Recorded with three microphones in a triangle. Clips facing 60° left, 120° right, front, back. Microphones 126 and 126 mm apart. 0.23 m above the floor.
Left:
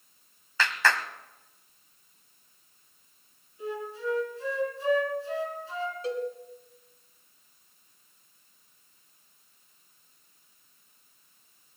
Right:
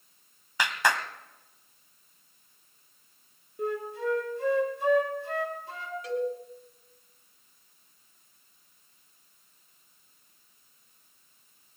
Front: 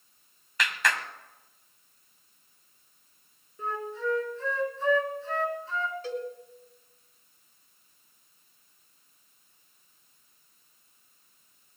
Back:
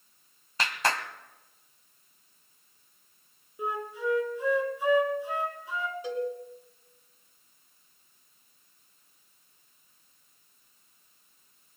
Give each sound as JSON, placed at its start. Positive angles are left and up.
{"t": 0.6, "sound": "a clap", "azimuth_deg": 180, "distance_m": 1.1}
{"t": 3.6, "sound": "a flute", "azimuth_deg": -105, "distance_m": 2.0}
{"t": 6.0, "sound": "a cowbell", "azimuth_deg": 110, "distance_m": 2.5}